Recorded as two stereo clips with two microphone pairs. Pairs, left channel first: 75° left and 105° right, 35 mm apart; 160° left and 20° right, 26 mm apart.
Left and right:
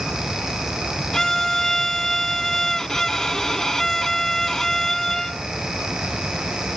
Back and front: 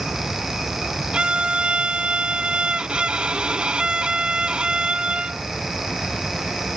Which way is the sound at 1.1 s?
5° left.